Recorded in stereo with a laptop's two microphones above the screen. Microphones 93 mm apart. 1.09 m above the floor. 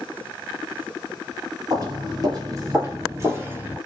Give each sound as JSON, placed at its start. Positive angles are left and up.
{"t": 1.7, "sound": "footsteps", "side_deg": -45, "distance_m": 1.4}